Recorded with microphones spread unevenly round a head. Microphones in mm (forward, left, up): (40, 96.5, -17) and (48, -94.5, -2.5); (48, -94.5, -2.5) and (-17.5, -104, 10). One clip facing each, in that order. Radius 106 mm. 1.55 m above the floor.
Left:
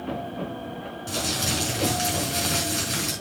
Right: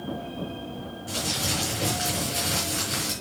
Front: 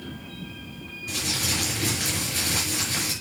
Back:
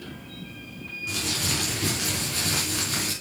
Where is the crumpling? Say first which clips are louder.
Left 2 dB, even; 140° left, 5 m.